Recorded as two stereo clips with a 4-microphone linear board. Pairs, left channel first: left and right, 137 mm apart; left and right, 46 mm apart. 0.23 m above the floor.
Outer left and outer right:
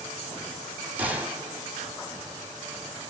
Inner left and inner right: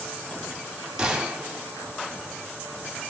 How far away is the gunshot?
About 1.5 m.